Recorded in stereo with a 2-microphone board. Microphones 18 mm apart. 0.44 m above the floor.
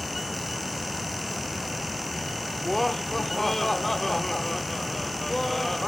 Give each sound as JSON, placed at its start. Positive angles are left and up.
{"t": 2.6, "sound": "laughter", "side_deg": 10, "distance_m": 1.0}